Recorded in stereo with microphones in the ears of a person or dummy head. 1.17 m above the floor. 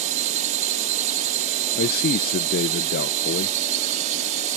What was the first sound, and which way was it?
A drone, 40° right (ahead or behind).